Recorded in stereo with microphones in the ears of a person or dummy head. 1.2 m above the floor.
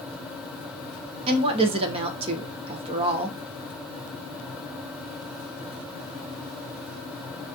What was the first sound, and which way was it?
A woman speaking, 30° right (ahead or behind).